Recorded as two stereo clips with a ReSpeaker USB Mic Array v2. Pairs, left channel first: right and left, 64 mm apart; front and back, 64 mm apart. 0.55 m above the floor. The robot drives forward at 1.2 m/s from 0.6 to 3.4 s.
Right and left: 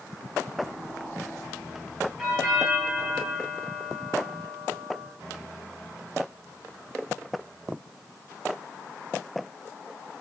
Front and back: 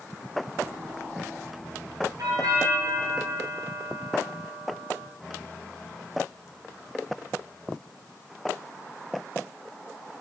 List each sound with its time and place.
2.2 s a doorbell: 175° left, 5.5 m